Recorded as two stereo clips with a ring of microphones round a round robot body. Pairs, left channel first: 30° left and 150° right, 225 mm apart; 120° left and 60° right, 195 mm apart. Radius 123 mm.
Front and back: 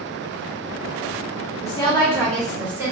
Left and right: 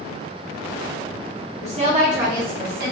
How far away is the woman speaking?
About 1.0 m.